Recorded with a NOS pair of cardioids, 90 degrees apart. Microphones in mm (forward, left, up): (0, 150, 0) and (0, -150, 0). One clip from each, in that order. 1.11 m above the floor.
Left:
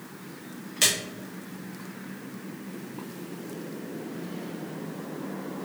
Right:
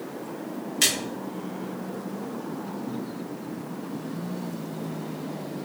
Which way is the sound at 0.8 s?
Straight ahead.